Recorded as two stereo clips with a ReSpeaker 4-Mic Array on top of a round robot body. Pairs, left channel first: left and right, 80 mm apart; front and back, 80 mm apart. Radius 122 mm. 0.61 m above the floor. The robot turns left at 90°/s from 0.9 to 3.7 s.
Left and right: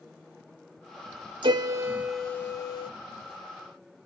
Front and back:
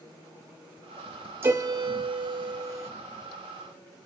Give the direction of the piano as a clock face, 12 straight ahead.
4 o'clock.